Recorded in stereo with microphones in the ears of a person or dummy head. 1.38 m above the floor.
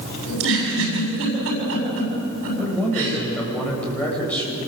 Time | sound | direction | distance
0.3 | a giggle | 70° right (ahead or behind) | 7.5 m
2.6 | a man speaking | 10° left (ahead or behind) | 7.5 m